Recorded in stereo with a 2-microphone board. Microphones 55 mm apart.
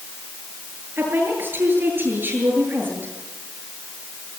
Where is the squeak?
I don't hear a squeak.